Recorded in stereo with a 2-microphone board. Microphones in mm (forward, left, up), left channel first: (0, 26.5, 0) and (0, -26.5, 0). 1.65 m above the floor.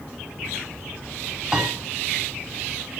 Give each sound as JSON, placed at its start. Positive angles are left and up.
{"t": 1.5, "sound": "a piano", "side_deg": -15, "distance_m": 4.0}